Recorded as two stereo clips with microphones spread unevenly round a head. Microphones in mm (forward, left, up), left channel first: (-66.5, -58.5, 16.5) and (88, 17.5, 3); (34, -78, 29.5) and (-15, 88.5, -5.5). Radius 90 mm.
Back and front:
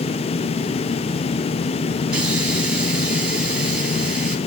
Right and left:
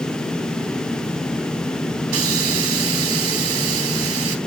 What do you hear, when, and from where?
2.1 s a hiss: 115° left, 2.5 m